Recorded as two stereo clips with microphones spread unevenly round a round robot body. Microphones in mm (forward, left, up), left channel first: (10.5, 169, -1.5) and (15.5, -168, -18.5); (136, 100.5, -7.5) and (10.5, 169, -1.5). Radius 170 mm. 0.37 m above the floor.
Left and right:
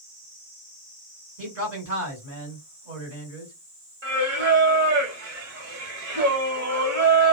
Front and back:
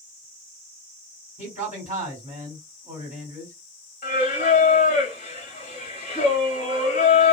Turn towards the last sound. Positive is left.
turn(degrees=-35)